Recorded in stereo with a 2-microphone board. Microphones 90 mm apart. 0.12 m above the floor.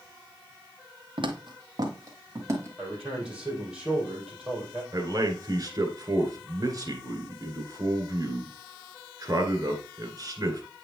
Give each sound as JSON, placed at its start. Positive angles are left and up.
{"t": 1.2, "sound": "footsteps", "side_deg": -65, "distance_m": 1.2}
{"t": 2.8, "sound": "a man speaking", "side_deg": -10, "distance_m": 4.0}
{"t": 4.9, "sound": "a man speaking", "side_deg": -40, "distance_m": 1.6}